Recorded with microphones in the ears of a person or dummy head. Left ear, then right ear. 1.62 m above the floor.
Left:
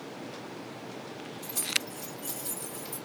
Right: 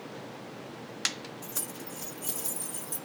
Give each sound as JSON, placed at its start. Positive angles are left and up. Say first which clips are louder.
{"t": 1.4, "sound": "keys jangling", "louder": "left 13 dB", "side_deg": -45, "distance_m": 2.0}